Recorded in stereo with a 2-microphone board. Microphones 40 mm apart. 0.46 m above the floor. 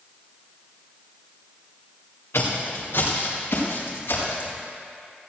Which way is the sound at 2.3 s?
75° left (ahead or behind).